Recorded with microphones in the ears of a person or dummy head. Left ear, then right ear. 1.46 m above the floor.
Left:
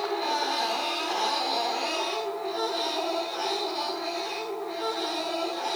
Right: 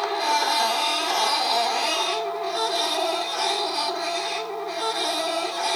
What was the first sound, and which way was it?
A machine running, 60° right (ahead or behind).